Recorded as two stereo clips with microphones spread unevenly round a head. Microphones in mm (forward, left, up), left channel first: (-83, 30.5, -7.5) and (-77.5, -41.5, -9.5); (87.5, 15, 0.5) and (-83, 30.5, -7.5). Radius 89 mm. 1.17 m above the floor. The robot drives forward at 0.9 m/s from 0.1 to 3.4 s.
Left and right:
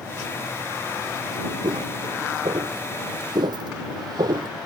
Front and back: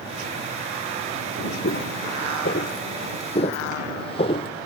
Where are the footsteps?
40° right; by 4.5 s 60° right.